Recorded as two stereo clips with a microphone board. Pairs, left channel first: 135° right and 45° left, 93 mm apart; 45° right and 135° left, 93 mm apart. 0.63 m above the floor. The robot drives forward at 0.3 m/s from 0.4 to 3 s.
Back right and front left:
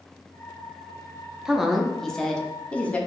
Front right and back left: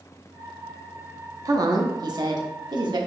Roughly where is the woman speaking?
Behind left.